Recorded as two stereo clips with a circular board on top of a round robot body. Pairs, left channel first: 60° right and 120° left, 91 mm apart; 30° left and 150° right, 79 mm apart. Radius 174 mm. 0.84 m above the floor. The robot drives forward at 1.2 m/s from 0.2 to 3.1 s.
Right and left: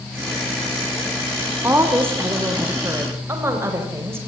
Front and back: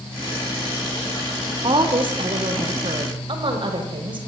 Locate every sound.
1.6 s a woman speaking: 170° right, 3 m; by 4.2 s 175° right, 5 m